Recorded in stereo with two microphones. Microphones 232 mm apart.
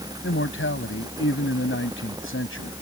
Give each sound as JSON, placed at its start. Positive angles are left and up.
{"t": 0.2, "sound": "a man speaking", "side_deg": 65}